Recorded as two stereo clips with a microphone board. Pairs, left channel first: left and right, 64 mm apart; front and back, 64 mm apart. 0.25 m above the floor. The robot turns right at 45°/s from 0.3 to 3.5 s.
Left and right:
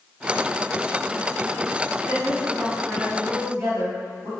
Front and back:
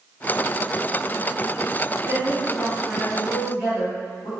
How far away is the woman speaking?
About 1.8 m.